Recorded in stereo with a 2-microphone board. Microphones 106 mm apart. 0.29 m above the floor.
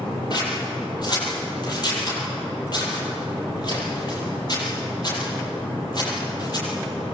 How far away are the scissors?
About 9.5 m.